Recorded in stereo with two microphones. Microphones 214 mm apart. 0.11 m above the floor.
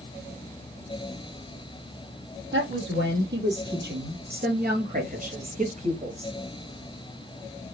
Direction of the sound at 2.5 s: 65° right (ahead or behind).